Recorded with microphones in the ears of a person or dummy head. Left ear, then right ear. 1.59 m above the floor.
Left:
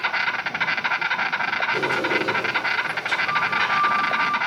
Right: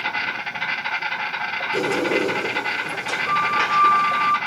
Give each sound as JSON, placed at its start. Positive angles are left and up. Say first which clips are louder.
{"t": 0.0, "sound": "an insect", "louder": "left 2 dB", "side_deg": 75, "distance_m": 1.4}
{"t": 1.7, "sound": "a sliding door", "louder": "right 1 dB", "side_deg": -20, "distance_m": 4.0}